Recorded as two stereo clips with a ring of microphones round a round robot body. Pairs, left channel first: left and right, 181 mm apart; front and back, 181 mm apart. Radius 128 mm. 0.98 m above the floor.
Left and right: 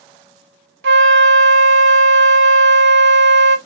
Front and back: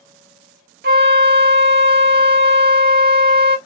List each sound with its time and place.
0.8 s a flute: 130° right, 0.6 m